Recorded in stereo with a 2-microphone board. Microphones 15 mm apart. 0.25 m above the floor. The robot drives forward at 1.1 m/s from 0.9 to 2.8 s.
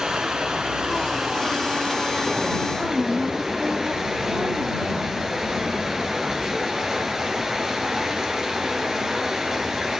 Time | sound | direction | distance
0.0 | running water | 65° right (ahead or behind) | 1.7 m
2.7 | a woman speaking | 75° right (ahead or behind) | 5 m